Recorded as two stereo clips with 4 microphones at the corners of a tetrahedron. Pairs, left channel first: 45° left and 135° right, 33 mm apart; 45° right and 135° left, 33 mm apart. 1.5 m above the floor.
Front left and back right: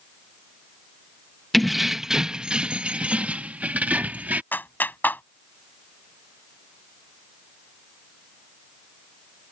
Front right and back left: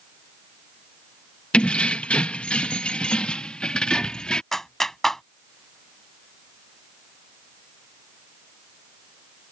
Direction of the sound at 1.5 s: 35° right.